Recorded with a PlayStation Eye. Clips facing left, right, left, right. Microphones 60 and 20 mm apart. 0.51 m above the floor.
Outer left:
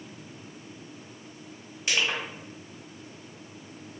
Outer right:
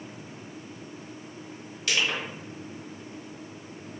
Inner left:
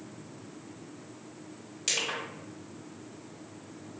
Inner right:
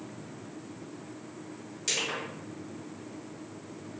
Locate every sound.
1.9 s crushing: 20° left (ahead or behind), 1.9 m